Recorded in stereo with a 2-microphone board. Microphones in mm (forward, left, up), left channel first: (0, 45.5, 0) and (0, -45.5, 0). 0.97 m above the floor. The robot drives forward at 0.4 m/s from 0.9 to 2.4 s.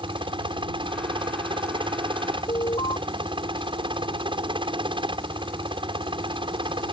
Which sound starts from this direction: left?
An alarm, at 2.5 s.